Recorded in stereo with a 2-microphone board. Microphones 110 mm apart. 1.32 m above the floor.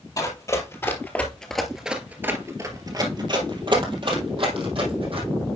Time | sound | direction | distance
0.2 | running footsteps | 35° left (ahead or behind) | 2 m